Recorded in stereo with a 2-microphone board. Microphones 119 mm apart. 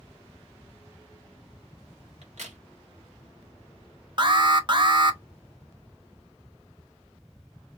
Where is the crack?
70° right (ahead or behind), 1.8 m.